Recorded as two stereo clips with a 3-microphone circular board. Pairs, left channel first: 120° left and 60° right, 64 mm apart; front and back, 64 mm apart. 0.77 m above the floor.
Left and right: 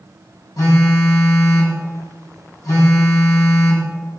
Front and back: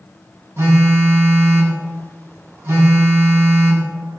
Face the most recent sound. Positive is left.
turn(degrees=135)